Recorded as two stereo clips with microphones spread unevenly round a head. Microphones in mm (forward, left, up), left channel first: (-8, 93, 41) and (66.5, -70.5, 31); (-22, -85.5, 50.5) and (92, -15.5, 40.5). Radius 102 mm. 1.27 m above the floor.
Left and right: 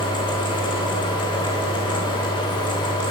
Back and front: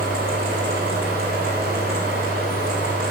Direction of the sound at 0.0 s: 55° left.